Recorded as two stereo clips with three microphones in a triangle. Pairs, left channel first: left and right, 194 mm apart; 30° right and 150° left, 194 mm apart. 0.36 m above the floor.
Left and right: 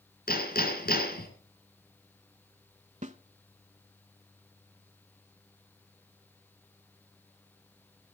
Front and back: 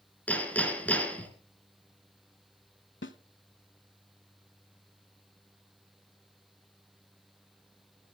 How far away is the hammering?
About 2.5 m.